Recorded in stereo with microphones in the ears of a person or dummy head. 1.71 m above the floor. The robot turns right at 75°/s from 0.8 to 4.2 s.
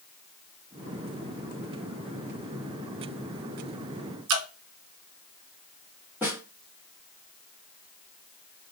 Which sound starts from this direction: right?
Dripping, at 4.3 s.